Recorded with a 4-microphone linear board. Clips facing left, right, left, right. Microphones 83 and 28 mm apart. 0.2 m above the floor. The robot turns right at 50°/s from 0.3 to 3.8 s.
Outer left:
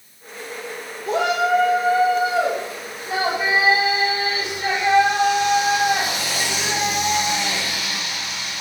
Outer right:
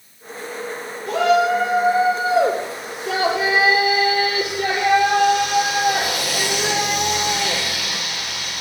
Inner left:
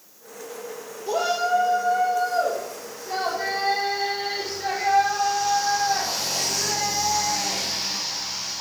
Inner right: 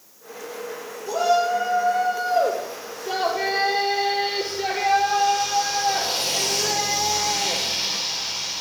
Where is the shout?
155° left, 4.5 m; by 8.6 s 65° right, 4.5 m.